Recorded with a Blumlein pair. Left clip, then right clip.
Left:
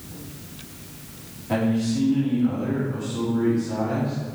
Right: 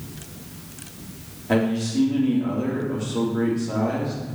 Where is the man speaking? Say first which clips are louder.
Right 2 dB; 20° right, 3 m.